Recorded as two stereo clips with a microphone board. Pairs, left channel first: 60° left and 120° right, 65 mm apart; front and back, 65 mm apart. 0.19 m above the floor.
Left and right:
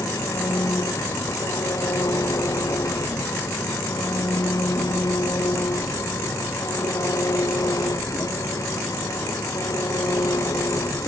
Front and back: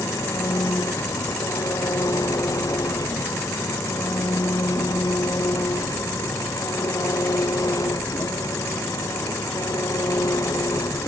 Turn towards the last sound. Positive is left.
turn(degrees=30)